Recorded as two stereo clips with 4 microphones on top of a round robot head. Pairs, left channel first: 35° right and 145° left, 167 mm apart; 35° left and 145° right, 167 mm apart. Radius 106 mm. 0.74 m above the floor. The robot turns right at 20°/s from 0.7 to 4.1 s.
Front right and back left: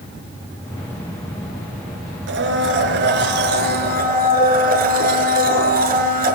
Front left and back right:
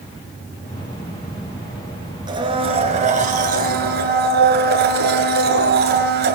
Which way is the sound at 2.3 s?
150° left.